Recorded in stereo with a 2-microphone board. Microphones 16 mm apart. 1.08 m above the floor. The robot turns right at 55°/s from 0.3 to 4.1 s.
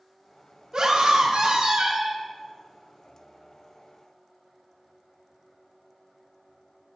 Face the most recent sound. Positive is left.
turn(degrees=55)